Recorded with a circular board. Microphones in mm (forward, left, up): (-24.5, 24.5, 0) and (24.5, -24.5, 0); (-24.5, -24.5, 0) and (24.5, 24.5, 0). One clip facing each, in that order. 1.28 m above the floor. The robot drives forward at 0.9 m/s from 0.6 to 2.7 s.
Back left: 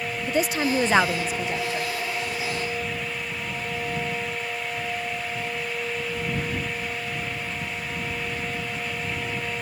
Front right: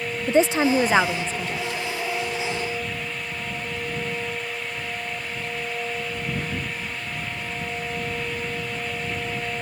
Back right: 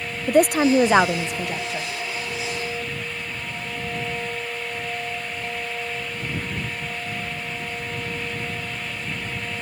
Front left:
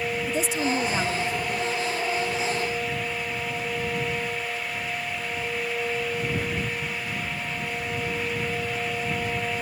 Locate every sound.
0.3 s a woman speaking: 105° right; by 1.9 s 160° right